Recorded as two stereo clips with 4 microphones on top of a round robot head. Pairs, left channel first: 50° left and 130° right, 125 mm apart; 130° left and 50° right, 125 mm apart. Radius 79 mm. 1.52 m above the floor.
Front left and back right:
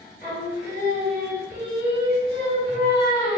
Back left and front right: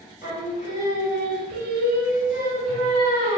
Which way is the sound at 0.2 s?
140° left.